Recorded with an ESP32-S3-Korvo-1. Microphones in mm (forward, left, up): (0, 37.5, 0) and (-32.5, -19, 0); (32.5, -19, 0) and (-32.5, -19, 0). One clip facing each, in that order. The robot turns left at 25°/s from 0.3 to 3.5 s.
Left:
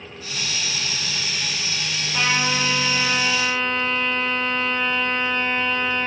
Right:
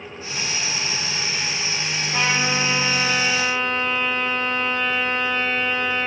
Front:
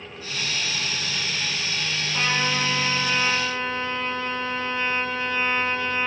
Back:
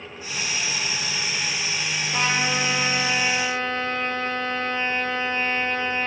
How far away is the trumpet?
About 5 m.